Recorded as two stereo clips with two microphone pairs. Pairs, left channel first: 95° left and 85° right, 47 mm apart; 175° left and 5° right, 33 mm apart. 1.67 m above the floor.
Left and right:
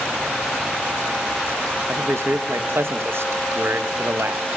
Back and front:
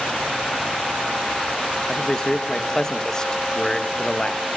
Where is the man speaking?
115° right, 1.8 m.